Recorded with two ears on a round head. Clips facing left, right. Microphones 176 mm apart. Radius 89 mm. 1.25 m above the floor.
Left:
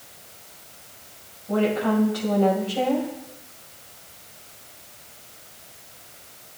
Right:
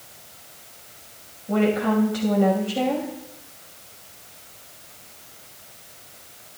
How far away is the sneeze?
I don't hear a sneeze.